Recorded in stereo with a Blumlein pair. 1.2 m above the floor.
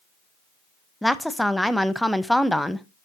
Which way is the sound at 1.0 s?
Straight ahead.